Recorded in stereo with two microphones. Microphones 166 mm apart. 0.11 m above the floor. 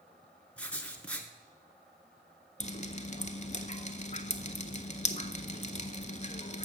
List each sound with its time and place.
0.6 s writing: 5° left (ahead or behind), 1.0 m
2.6 s dripping: 40° left (ahead or behind), 0.6 m